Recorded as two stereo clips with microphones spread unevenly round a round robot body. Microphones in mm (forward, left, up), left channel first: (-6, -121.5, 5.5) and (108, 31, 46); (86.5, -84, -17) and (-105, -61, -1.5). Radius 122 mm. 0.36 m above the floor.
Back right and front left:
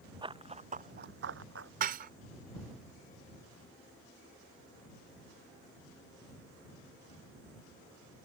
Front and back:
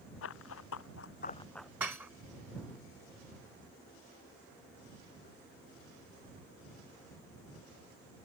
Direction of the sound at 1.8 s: 90° left.